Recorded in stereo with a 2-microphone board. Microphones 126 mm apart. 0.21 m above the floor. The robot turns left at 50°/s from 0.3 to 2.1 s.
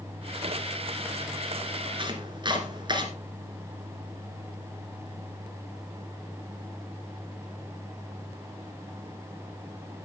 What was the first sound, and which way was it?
Chopping, 40° right (ahead or behind).